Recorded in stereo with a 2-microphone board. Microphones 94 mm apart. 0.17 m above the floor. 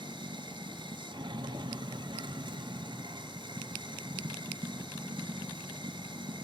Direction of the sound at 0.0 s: 55° right (ahead or behind).